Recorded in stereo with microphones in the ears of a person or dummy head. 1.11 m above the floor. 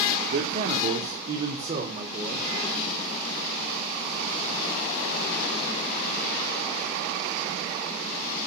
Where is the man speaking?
45° right (ahead or behind), 3 m; by 2.5 s 30° right (ahead or behind), 4 m.